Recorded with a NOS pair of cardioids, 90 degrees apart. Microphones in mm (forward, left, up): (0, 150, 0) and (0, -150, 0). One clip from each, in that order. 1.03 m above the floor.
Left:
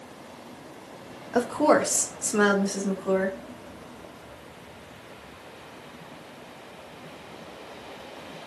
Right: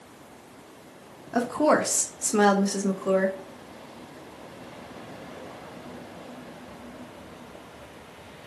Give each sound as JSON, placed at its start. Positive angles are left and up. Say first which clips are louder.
{"t": 1.3, "sound": "a woman speaking", "louder": "left 1 dB", "azimuth_deg": 5, "distance_m": 1.1}